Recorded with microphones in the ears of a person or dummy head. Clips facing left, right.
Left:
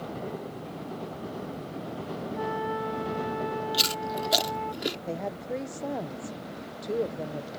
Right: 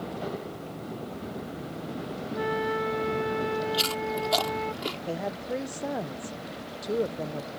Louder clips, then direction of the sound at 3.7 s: Right 2 dB; 20° left (ahead or behind).